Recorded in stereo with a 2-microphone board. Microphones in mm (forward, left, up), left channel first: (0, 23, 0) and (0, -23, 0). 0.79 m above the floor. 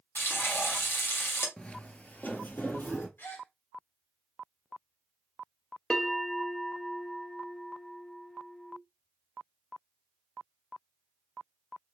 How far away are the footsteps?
About 0.8 m.